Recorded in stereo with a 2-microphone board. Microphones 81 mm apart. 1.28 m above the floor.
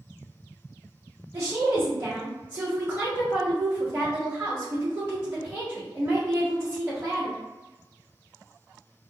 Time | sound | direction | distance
1.3 | a woman speaking | 35° right (ahead or behind) | 1.6 m